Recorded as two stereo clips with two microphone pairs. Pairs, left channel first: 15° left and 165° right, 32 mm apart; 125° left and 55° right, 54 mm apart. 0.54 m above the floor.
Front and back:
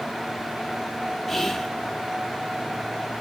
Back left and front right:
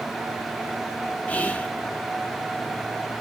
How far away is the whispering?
About 0.7 m.